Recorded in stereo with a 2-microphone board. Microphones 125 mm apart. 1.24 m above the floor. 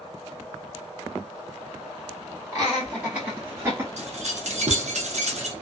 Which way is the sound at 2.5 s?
10° right (ahead or behind).